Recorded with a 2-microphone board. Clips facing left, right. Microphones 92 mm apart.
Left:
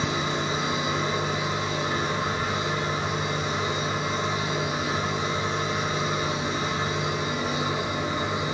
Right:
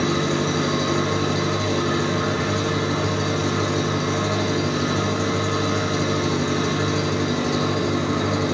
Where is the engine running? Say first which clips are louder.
Right 6 dB; 80° right, 3 m.